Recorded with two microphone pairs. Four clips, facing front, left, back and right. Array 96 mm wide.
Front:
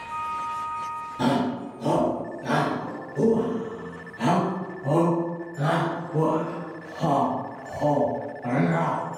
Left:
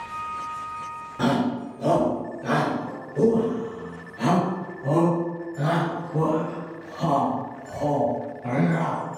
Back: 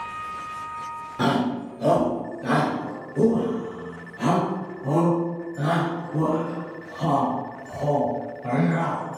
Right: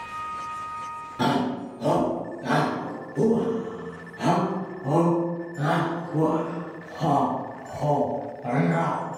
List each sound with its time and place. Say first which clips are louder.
1.2 s a shout: left 1 dB, back 1 dB; 170° left, 1.9 m; by 9.0 s 65° left, 3.5 m